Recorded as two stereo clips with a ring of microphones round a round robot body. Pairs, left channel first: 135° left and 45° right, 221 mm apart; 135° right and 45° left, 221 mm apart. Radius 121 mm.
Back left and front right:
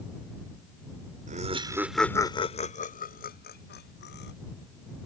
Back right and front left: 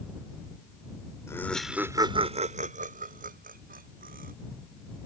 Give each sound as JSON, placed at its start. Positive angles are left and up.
{"t": 1.3, "sound": "laughter", "azimuth_deg": -65}